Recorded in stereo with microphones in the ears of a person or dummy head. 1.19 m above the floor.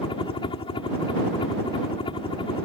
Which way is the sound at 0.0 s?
30° left (ahead or behind).